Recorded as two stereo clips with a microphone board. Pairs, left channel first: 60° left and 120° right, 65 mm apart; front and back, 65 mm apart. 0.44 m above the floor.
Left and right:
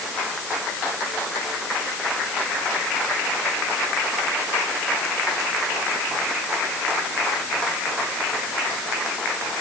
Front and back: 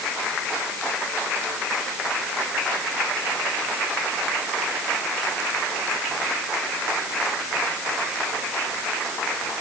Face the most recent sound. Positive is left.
No sound to turn to.